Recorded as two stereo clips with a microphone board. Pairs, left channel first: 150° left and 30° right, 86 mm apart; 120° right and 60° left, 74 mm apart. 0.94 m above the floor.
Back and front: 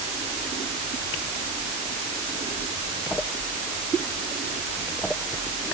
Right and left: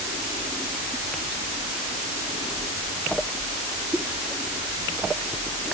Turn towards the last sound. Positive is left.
No sound to turn to.